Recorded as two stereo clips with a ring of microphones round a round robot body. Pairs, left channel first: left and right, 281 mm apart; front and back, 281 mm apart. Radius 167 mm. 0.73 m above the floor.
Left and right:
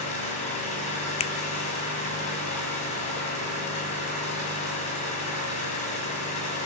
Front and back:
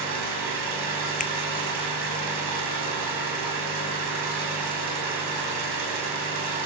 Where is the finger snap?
35° left, 0.6 m.